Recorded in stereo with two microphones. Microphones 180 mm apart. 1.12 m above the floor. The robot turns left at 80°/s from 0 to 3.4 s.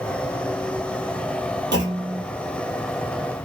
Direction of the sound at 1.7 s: 80° right.